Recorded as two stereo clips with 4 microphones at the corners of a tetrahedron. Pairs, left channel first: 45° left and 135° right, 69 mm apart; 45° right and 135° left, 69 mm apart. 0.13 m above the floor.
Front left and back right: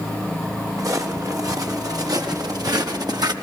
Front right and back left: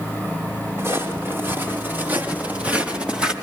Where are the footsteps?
170° right, 7.5 m; by 3.3 s 150° right, 4.5 m.